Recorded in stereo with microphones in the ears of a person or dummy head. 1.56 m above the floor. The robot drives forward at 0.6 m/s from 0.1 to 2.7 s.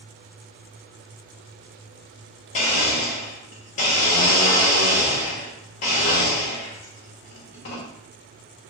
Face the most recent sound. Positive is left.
turn(degrees=30)  # may be behind; listen again after turning